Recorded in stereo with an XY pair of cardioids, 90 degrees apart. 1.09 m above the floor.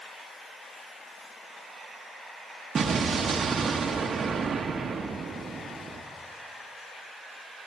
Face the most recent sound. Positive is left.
turn(degrees=-55)